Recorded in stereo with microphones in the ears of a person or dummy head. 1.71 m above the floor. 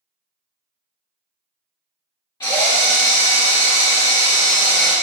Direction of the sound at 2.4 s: 25° left (ahead or behind).